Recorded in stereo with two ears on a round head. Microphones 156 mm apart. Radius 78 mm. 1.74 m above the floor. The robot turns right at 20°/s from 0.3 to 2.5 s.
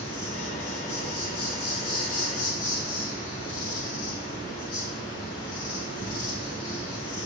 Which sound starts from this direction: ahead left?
An insect, at 0.0 s.